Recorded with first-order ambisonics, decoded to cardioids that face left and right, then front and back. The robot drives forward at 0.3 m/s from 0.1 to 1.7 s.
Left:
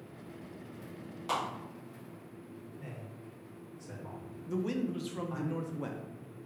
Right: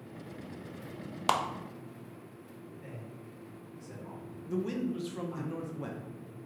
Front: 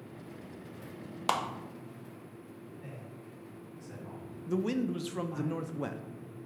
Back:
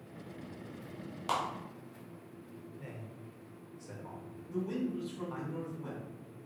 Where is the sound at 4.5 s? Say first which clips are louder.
Even, front 5 dB; 5° left, 0.6 m.